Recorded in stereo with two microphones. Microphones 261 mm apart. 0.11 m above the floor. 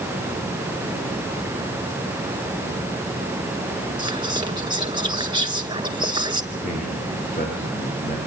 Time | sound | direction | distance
4.0 | whispering | 20° right (ahead or behind) | 1.2 m
6.5 | a man speaking | 30° left (ahead or behind) | 8 m